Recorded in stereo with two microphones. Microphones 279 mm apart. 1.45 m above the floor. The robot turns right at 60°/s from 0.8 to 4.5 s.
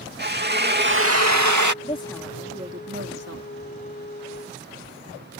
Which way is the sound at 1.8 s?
155° left.